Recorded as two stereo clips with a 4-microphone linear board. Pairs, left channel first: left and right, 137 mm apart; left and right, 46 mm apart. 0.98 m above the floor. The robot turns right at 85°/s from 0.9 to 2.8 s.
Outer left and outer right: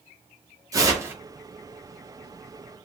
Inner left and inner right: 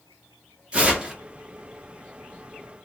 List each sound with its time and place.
0.7 s tearing paper: 25° right (ahead or behind), 0.7 m; by 1.1 s 15° right (ahead or behind), 0.7 m